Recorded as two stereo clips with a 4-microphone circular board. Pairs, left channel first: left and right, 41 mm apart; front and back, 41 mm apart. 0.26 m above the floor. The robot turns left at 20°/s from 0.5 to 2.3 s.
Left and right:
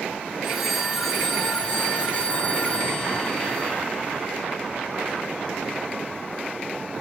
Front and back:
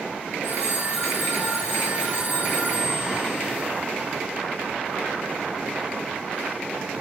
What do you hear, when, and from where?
0.4 s a phone ringing: 175° right, 1.7 m; by 3.7 s 150° left, 1.7 m